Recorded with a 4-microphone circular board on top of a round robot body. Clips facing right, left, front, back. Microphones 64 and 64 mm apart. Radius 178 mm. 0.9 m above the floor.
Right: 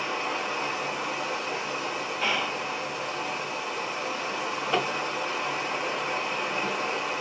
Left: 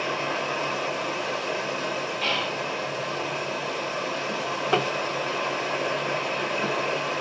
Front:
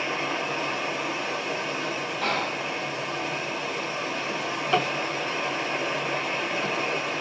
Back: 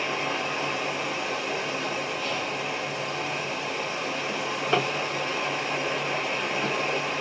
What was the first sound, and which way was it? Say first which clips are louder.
Running water: left 2 dB, even; 85° left.